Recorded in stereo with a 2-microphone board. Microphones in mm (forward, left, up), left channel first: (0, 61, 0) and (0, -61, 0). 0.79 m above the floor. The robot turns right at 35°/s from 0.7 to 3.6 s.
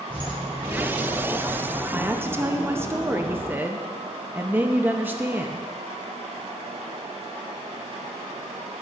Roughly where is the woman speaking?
Centre.